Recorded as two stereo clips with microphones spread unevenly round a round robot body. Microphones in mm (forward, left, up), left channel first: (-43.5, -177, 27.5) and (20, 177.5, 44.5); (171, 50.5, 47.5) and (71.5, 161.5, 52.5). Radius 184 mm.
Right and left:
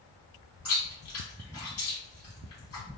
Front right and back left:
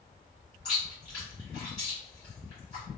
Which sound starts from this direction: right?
Chewing, at 0.7 s.